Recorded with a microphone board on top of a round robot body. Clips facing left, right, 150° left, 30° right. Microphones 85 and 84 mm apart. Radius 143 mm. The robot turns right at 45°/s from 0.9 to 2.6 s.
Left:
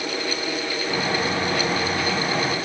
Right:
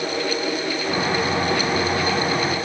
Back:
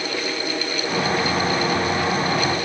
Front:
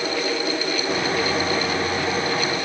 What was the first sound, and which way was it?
Only background noise.